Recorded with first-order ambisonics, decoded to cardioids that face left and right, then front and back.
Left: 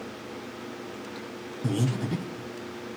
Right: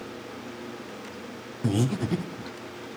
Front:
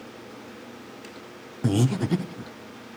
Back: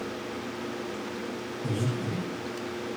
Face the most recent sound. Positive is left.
turn(degrees=-20)